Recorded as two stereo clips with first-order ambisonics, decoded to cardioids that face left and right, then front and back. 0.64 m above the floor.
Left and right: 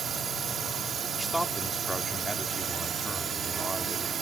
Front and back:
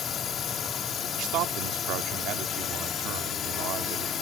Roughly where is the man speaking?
Behind.